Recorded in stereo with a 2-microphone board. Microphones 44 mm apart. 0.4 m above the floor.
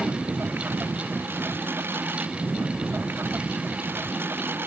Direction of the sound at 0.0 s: 55° right (ahead or behind).